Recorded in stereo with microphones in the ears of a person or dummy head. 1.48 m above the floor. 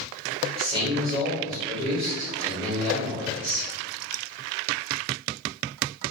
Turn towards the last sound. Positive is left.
turn(degrees=5)  # may be behind; listen again after turning